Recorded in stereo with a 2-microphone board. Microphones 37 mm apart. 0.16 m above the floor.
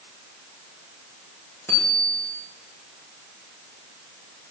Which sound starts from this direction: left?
A bicycle bell, at 1.7 s.